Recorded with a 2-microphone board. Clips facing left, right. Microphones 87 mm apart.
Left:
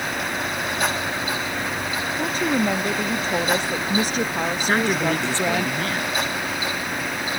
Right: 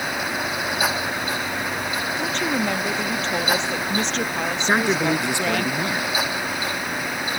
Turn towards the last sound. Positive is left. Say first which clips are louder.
# right 2 dB
turn(degrees=-15)  # may be behind; listen again after turning